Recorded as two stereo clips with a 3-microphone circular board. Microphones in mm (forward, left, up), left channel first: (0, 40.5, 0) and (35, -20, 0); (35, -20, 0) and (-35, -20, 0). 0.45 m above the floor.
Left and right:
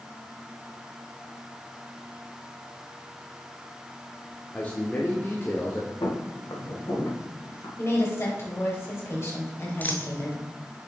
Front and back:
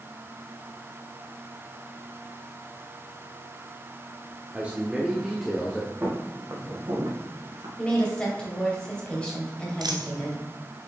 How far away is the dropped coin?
About 1.0 m.